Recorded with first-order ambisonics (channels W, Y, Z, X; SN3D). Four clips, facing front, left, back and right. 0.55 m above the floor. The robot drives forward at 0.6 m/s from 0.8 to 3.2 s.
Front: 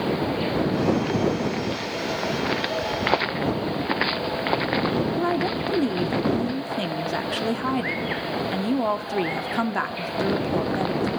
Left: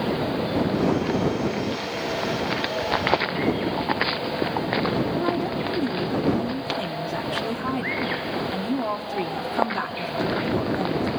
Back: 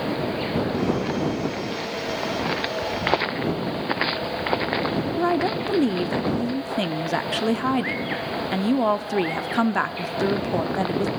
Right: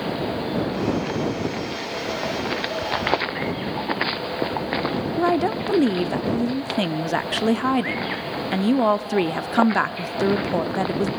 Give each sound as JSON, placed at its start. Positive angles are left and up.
{"t": 5.2, "sound": "a woman speaking", "azimuth_deg": -110, "distance_m": 0.8}